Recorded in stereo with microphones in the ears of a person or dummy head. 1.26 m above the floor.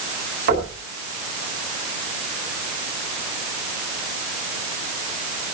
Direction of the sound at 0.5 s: 60° right (ahead or behind).